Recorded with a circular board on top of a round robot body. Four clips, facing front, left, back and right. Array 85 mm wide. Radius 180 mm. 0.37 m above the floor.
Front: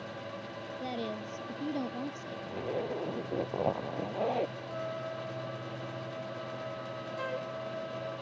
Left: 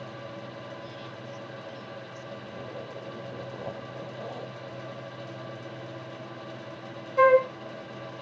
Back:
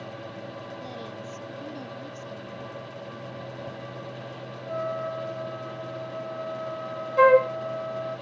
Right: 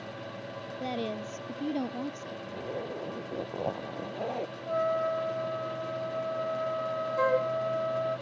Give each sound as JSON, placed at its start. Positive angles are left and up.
{"t": 0.8, "sound": "a woman speaking", "azimuth_deg": -70}
{"t": 2.5, "sound": "a zipper", "azimuth_deg": -20}
{"t": 4.7, "sound": "a trumpet", "azimuth_deg": -120}
{"t": 7.2, "sound": "a flute", "azimuth_deg": 155}